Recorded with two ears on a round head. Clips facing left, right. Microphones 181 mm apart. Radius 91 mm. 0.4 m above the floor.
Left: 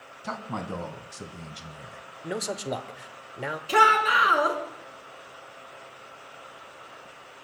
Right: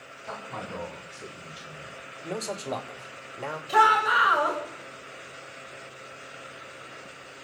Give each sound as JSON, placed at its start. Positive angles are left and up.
{"t": 0.2, "sound": "a man speaking", "side_deg": 65, "distance_m": 3.0}
{"t": 2.2, "sound": "a man speaking", "side_deg": 15, "distance_m": 1.1}
{"t": 3.7, "sound": "a shout", "side_deg": 40, "distance_m": 5.0}